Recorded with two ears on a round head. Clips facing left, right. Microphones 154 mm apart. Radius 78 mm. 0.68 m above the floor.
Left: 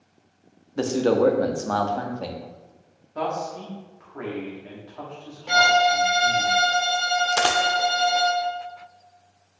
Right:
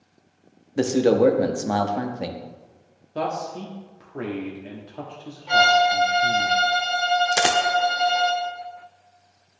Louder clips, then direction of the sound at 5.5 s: Right 1 dB; 50° left (ahead or behind).